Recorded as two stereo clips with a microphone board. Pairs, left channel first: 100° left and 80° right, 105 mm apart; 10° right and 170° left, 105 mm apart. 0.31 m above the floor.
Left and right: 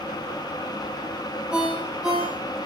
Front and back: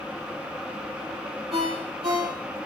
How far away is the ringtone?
About 4.5 m.